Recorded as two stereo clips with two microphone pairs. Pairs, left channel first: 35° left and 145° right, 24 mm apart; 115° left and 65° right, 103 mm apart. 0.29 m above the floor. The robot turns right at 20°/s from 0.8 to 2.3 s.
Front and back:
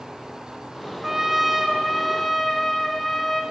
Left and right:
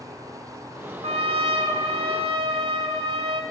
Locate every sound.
1.0 s a trumpet: 70° right, 0.9 m; by 3.4 s 45° right, 0.9 m